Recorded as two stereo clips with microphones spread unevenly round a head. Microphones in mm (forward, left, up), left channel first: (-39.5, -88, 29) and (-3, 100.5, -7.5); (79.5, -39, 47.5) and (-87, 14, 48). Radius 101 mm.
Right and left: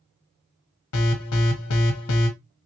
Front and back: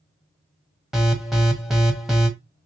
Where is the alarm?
110° right, 1.1 m.